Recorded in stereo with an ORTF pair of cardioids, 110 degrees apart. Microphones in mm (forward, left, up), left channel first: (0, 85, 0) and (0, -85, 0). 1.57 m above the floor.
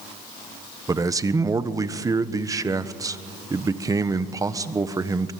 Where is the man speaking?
20° right, 1.3 m.